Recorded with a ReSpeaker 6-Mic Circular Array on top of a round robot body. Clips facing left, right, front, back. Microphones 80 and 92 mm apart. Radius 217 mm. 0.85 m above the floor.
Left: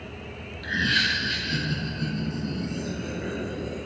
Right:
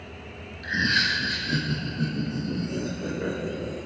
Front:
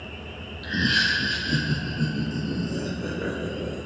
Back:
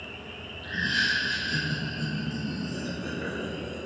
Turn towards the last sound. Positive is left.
turn(degrees=-60)